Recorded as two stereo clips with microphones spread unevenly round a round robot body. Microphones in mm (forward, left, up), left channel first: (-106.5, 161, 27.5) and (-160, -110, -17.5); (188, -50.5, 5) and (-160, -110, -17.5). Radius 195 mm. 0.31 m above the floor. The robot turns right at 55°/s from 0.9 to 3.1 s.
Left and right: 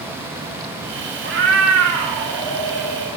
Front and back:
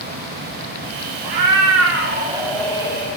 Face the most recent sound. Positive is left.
turn(degrees=-50)